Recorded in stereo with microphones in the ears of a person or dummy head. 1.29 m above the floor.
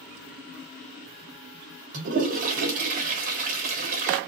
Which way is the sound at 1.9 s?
40° right (ahead or behind).